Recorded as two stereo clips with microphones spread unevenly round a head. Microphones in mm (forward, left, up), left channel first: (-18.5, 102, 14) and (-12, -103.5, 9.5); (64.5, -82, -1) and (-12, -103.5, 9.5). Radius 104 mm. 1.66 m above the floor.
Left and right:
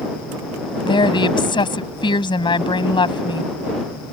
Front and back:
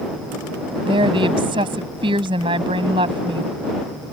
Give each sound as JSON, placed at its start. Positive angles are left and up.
{"t": 0.8, "sound": "a woman speaking", "azimuth_deg": 160}